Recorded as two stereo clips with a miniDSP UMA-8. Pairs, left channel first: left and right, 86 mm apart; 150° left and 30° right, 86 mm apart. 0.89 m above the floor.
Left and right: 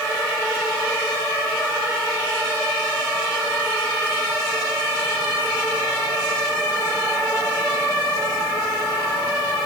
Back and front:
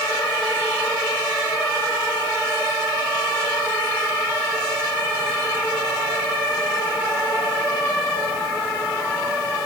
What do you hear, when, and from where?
Only background noise.